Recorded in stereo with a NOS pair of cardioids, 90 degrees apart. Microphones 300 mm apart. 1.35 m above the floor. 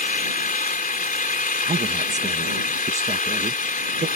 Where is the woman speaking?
25° right.